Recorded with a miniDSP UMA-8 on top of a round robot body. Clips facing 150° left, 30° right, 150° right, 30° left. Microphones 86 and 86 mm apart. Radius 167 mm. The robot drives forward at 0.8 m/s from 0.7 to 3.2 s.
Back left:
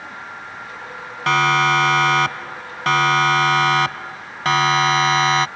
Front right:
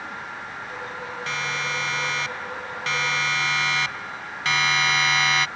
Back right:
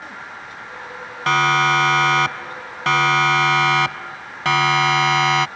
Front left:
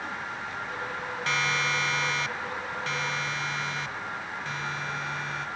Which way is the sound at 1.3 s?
175° left.